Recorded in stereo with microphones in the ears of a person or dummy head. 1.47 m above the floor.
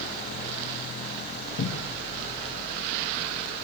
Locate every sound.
1.6 s a cupboard door: 65° left (ahead or behind), 1.3 m